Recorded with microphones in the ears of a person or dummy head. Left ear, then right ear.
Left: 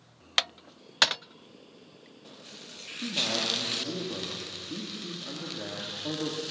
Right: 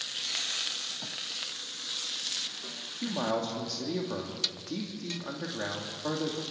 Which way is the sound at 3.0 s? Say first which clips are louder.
Left 3 dB; 60° right (ahead or behind).